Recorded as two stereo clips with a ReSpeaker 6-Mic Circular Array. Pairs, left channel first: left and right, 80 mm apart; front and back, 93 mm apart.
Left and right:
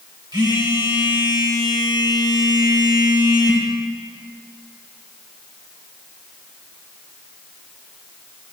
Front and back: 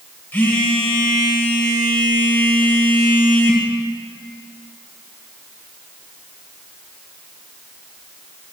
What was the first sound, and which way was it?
A phone buzzing, 70° right.